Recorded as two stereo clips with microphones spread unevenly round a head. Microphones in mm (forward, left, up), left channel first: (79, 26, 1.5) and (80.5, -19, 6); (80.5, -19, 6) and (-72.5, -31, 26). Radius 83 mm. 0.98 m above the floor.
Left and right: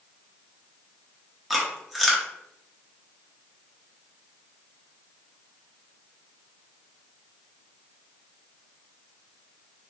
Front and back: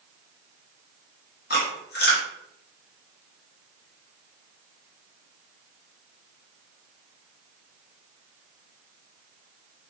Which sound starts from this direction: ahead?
Chewing, at 1.5 s.